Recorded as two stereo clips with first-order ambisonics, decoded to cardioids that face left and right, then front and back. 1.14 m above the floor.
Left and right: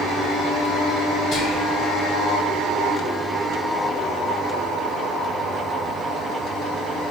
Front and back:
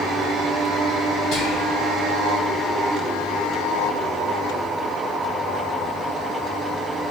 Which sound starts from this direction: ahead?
Whispering, at 1.3 s.